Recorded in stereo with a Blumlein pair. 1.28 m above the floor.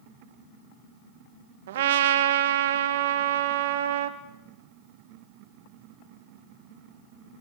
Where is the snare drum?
No snare drum in this recording.